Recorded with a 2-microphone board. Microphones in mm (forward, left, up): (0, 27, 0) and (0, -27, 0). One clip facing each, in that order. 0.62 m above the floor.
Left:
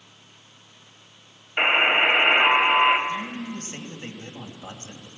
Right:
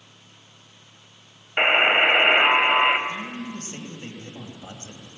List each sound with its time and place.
1.6 s a buzzer: 25° right (ahead or behind), 2.0 m
3.1 s a man speaking: 20° left (ahead or behind), 4 m